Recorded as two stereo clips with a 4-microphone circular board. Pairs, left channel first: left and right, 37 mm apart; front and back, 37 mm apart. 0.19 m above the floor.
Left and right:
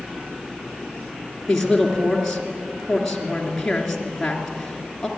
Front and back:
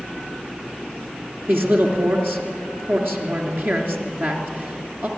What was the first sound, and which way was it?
A man speaking, 170° left.